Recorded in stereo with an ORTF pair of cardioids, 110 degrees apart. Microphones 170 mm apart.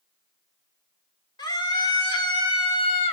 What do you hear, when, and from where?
1.4 s a scream: 25° left, 3 m; by 3.1 s 35° left, 1.8 m